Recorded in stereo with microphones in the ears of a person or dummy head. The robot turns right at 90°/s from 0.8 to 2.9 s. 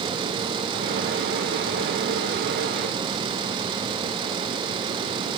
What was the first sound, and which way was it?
Only background noise.